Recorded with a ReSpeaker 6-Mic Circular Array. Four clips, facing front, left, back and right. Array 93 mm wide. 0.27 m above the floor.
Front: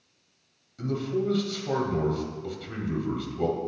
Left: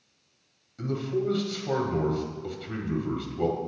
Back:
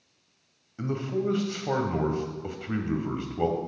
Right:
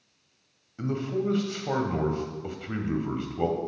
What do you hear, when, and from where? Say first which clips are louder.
0.8 s a man speaking: even, front 1 dB; 145° right, 1.0 m